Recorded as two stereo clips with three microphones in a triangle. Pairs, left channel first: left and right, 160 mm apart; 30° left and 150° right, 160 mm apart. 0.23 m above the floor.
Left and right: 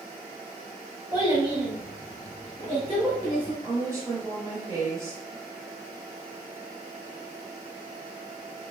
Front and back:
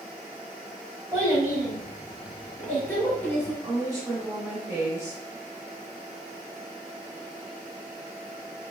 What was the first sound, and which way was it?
A child speaking, 120° right.